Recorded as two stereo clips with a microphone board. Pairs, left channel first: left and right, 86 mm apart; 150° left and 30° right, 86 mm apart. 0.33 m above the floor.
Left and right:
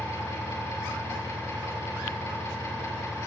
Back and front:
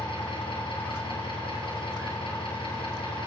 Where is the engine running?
150° left, 4.5 m.